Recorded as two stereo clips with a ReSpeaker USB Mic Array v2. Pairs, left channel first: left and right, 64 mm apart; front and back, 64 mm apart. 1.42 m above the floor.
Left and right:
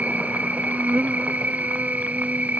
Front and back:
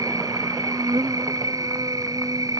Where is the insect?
155° right.